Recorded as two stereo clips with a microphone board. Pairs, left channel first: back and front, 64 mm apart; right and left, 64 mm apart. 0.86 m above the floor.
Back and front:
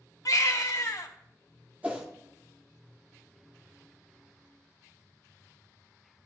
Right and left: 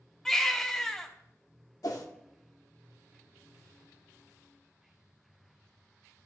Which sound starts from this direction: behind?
A baby crying, at 0.2 s.